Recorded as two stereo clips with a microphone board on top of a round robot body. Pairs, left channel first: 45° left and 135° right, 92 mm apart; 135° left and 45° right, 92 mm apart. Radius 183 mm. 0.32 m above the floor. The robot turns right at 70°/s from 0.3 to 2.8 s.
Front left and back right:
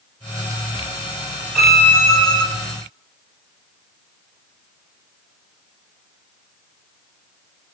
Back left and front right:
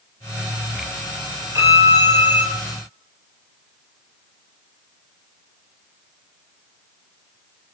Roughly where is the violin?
Ahead right.